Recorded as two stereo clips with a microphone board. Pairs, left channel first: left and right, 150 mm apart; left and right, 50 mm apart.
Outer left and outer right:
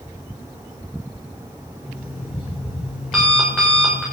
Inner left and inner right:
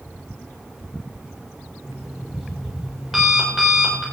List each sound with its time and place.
1.9 s an alarm clock: centre (ahead or behind), 8 m